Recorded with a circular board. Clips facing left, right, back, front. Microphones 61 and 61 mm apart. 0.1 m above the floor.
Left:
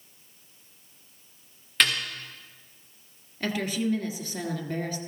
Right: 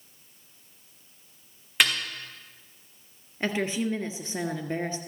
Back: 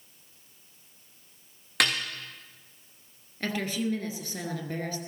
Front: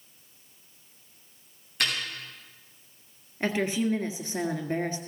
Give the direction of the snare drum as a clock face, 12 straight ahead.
6 o'clock.